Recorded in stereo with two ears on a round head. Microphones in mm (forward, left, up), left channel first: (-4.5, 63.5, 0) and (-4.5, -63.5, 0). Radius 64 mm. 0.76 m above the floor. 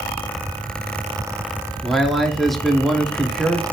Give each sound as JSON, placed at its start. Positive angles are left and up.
{"t": 1.8, "sound": "a man speaking", "side_deg": 0, "distance_m": 1.4}